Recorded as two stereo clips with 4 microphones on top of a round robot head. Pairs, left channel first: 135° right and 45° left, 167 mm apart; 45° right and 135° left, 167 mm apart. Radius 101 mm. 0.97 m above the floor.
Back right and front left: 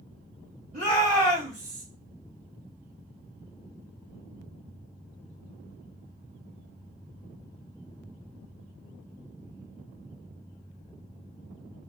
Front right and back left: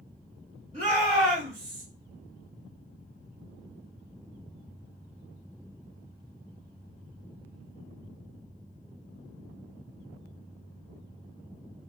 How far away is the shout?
About 2 m.